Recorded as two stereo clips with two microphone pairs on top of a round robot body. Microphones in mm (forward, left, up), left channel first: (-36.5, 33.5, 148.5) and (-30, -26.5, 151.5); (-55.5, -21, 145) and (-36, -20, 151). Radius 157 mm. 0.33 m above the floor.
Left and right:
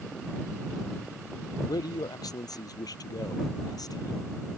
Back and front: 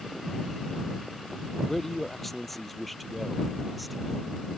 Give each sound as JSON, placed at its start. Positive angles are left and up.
{"t": 1.7, "sound": "a man speaking", "azimuth_deg": 105}